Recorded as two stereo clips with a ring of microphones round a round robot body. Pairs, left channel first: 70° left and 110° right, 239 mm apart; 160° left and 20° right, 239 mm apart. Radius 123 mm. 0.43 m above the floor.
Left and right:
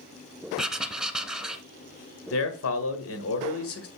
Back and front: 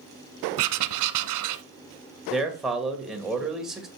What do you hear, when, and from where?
0.6 s writing: 25° right, 0.9 m
2.3 s a man speaking: 65° left, 1.7 m